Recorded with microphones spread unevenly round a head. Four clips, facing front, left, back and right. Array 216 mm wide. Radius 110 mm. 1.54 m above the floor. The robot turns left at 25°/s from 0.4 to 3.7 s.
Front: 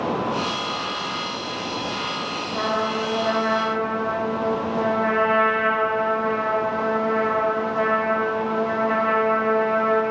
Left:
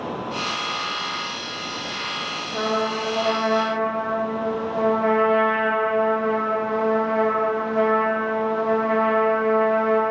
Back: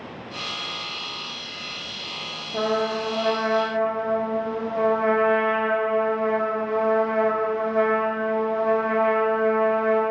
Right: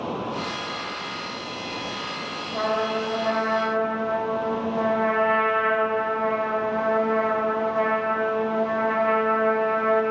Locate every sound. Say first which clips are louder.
2.5 s a trumpet: left 1 dB, back 1 dB; 175° left, 1.2 m; by 10.0 s 145° left, 1.2 m